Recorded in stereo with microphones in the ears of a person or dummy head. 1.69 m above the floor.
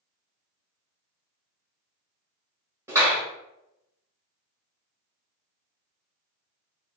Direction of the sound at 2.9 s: 15° right (ahead or behind).